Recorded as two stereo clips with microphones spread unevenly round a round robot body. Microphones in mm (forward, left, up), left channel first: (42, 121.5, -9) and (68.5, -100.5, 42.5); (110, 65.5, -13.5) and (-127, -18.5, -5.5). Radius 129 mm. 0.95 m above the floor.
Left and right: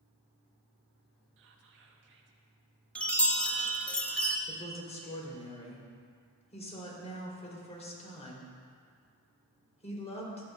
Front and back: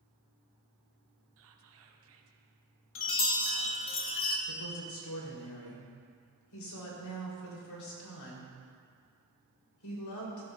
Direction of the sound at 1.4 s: 130° right.